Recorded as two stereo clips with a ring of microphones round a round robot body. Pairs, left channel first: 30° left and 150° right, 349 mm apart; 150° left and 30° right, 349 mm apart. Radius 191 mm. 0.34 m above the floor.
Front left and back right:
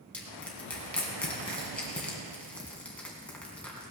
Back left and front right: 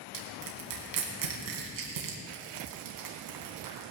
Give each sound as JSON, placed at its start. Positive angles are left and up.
{"t": 0.1, "sound": "crushing", "azimuth_deg": -55, "distance_m": 3.0}